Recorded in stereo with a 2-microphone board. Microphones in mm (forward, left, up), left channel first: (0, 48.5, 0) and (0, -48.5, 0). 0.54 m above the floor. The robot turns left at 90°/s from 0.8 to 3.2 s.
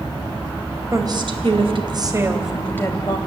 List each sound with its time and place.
0.9 s a woman speaking: 35° right, 3.5 m; by 3.2 s 120° left, 3.5 m